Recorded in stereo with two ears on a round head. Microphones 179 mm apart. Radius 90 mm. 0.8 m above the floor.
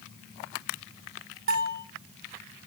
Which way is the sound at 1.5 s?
75° right (ahead or behind).